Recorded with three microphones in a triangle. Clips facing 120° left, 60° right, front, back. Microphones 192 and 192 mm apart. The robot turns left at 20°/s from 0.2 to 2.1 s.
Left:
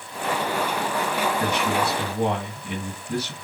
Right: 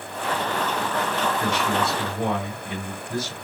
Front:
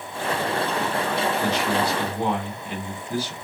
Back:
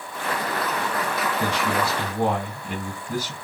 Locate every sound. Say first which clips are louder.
1.4 s a man speaking: even, front 1 dB; 150° left, 2.5 m; by 3.5 s 135° left, 2.5 m